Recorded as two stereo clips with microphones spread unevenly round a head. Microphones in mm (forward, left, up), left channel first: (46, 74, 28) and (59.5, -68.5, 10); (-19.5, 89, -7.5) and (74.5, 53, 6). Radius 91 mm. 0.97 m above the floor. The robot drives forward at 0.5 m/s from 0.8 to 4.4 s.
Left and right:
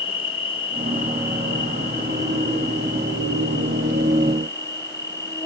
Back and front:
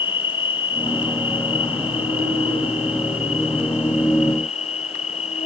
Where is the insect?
155° left; by 5.5 s 170° left.